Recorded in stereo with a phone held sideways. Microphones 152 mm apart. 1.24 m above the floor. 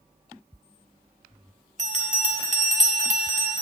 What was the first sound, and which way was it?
A bell, 55° right (ahead or behind).